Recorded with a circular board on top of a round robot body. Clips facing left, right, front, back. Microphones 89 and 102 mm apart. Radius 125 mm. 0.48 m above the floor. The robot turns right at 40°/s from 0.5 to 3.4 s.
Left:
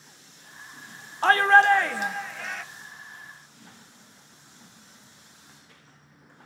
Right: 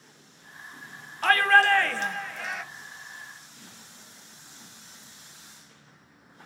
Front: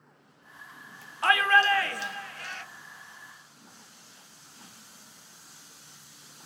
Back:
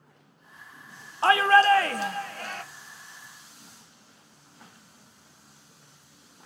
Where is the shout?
135° left, 0.9 m; by 2.6 s 170° right, 0.9 m.